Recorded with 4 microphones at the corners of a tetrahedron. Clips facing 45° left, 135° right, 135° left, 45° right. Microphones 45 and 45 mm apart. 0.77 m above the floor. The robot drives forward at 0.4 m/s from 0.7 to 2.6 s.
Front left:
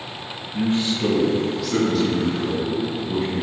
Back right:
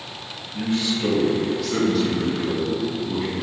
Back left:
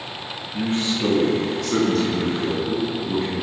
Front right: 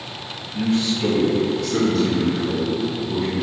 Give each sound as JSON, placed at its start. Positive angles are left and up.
{"t": 0.5, "sound": "a man speaking", "azimuth_deg": 100, "distance_m": 0.8}